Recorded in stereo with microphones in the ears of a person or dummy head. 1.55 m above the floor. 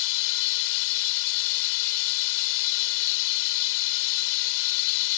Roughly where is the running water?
Left.